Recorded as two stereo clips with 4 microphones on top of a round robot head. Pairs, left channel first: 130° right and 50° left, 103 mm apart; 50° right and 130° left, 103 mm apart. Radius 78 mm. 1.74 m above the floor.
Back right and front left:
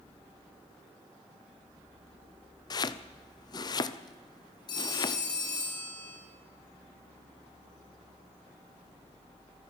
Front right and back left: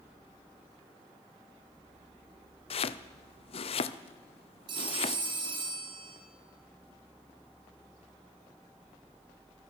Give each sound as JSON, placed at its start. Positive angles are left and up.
{"t": 2.7, "sound": "chopping", "azimuth_deg": -80, "distance_m": 0.9}
{"t": 4.7, "sound": "a phone ringing", "azimuth_deg": 180, "distance_m": 4.5}